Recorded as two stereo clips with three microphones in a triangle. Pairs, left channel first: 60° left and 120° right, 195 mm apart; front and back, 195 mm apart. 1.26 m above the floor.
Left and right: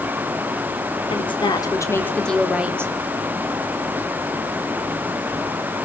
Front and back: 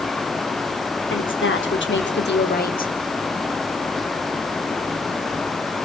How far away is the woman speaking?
About 3.5 m.